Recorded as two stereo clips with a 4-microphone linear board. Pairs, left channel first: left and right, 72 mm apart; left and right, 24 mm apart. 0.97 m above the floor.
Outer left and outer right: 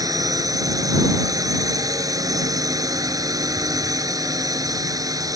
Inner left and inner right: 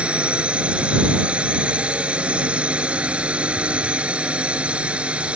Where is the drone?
60° right (ahead or behind).